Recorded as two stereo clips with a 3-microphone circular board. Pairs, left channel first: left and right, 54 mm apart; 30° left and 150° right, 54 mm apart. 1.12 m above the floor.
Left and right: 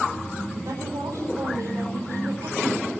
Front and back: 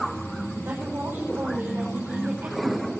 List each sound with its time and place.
0.7 s a woman speaking: 100° right, 5 m